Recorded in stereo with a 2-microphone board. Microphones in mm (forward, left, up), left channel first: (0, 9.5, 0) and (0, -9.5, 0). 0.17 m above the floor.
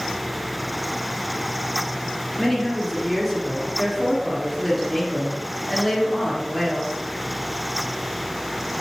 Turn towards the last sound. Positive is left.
turn(degrees=-5)  # may be behind; listen again after turning